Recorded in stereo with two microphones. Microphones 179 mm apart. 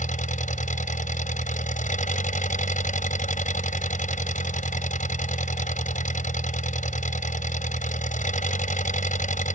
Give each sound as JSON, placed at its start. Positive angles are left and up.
{"t": 0.0, "sound": "an engine running", "side_deg": 45}